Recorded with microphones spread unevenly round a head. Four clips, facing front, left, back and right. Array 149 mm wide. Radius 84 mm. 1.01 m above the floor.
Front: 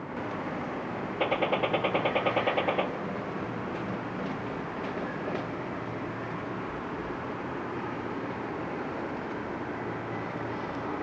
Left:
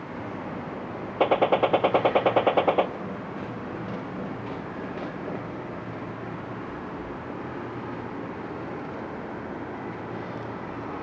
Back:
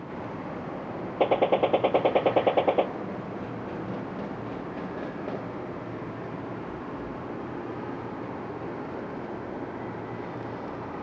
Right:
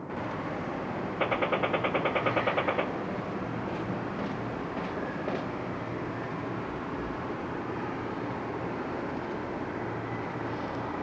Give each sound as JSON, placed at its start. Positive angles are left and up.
{"t": 1.2, "sound": "a gunshot", "azimuth_deg": 140, "distance_m": 0.7}